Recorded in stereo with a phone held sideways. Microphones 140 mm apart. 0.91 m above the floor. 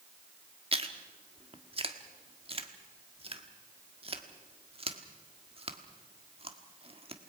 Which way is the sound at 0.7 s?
40° right (ahead or behind).